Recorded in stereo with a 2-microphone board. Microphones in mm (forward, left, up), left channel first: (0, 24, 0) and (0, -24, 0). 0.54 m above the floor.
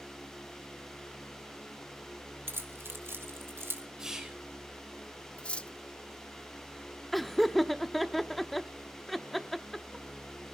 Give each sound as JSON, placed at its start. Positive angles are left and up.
{"t": 2.5, "sound": "keys jangling", "side_deg": -55, "distance_m": 1.6}
{"t": 4.0, "sound": "whispering", "side_deg": -10, "distance_m": 2.5}
{"t": 5.4, "sound": "cutlery clinking", "side_deg": 25, "distance_m": 0.6}
{"t": 7.1, "sound": "laughter", "side_deg": 5, "distance_m": 0.7}